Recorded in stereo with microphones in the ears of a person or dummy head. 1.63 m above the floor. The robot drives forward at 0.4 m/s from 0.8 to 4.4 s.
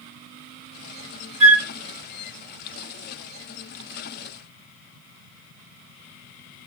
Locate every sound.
1.4 s a flute: 10° right (ahead or behind), 1.6 m